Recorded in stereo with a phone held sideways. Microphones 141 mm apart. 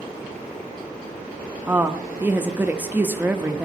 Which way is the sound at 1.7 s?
10° right (ahead or behind).